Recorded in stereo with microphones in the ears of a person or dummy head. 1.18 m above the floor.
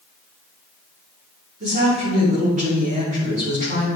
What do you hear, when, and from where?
1.6 s a woman speaking: 40° right (ahead or behind), 2.5 m